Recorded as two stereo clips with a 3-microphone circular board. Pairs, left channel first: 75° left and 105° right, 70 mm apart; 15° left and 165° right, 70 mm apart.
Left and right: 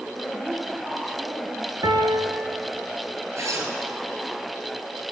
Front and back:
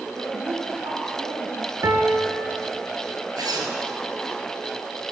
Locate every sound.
0.2 s a woman speaking: straight behind, 1.9 m; by 1.7 s 165° right, 3 m
1.8 s a piano: 125° right, 1.5 m
3.4 s a zipper: 150° right, 2.5 m